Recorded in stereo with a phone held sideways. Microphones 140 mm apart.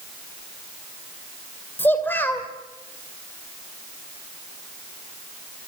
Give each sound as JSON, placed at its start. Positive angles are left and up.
{"t": 1.8, "sound": "a child speaking", "side_deg": 15, "distance_m": 2.0}